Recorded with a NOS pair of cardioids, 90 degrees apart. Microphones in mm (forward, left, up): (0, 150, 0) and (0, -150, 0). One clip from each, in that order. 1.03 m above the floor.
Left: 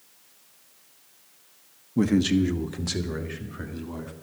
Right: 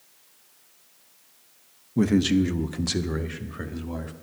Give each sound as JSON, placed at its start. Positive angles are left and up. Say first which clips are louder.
{"t": 2.0, "sound": "a man speaking", "louder": "right 1 dB", "azimuth_deg": -5, "distance_m": 0.7}